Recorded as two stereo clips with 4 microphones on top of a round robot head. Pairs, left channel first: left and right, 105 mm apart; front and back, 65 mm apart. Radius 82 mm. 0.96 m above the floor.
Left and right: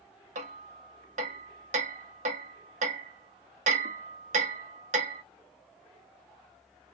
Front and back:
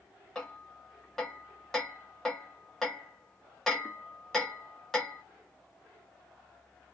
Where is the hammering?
85° right, 0.8 m.